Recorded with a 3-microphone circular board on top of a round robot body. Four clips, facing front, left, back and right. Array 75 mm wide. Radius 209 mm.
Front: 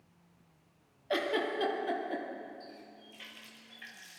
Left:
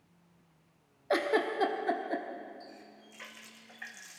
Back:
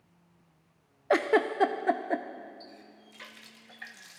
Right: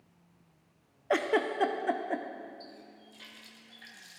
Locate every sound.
1.1 s a giggle: 175° right, 1.5 m
2.6 s a running tap: 145° left, 1.7 m